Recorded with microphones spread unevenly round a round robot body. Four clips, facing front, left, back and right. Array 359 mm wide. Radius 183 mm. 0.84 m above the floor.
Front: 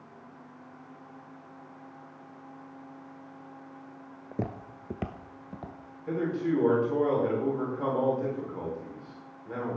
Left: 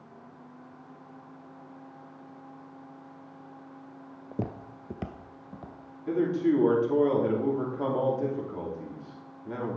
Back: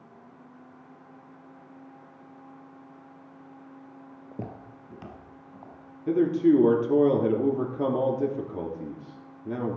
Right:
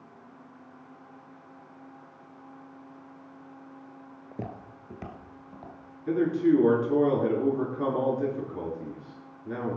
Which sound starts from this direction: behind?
A man speaking, at 6.1 s.